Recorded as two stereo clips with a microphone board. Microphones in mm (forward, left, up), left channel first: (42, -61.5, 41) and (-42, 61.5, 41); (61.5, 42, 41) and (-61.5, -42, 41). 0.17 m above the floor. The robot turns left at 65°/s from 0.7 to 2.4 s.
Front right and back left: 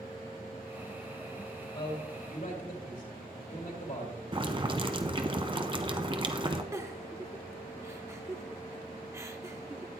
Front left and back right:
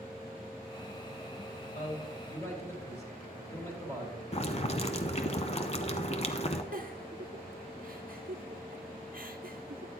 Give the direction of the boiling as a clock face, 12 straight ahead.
10 o'clock.